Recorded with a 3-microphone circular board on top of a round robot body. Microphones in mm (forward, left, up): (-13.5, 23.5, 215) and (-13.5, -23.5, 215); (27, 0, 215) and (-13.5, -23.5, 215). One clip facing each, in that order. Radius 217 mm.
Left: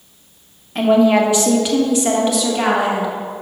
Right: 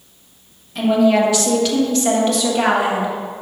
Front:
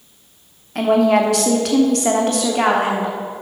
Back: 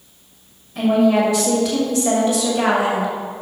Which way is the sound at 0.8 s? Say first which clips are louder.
Left 2 dB, front 1 dB; 40° left.